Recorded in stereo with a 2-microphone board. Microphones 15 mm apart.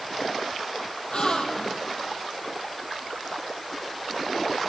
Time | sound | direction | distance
1.1 | a gasp | 55° left (ahead or behind) | 2 m